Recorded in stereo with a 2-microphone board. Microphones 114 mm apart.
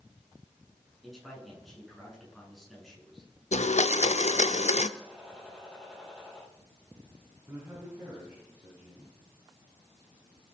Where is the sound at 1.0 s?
Centre (ahead or behind), 9 m.